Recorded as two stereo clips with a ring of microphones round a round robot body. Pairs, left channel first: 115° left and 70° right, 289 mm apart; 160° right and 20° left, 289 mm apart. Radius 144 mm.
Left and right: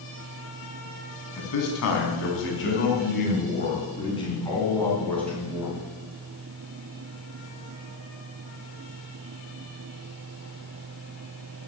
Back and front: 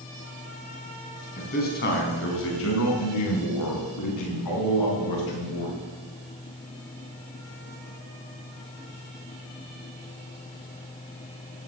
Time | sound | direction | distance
1.4 | a man speaking | 140° left | 4 m